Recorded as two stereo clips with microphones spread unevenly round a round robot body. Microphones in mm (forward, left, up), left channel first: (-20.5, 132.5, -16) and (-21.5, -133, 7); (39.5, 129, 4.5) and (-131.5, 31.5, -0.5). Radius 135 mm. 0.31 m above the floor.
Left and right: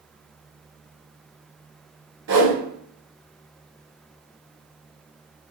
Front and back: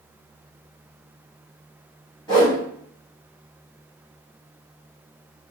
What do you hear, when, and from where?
2.3 s a whoosh: 45° right, 1.1 m